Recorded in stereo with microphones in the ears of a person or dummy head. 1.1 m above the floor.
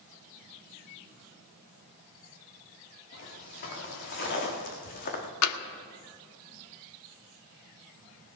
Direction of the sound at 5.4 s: 85° left.